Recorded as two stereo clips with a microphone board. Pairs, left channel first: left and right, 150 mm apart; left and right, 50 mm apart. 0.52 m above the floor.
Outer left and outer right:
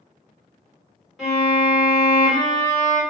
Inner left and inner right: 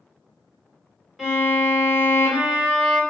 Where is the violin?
Centre (ahead or behind), 1.7 m.